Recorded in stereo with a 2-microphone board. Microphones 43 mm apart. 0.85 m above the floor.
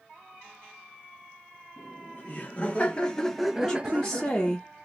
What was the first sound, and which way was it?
Laughter, 45° left (ahead or behind).